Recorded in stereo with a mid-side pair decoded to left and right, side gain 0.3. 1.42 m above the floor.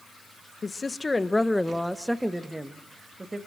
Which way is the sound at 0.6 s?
45° left.